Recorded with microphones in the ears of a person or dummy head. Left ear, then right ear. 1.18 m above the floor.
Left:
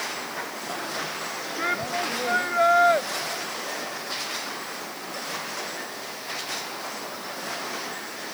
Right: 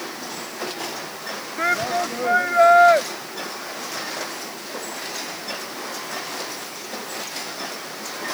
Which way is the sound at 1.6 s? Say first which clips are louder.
Right 6 dB; 30° right (ahead or behind).